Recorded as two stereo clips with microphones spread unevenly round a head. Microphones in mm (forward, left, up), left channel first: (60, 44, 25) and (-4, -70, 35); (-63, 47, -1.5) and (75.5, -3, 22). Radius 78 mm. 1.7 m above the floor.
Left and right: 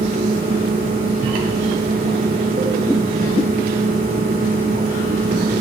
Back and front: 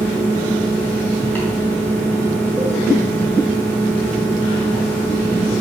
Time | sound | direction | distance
0.0 | a fan | 115° right | 3.5 m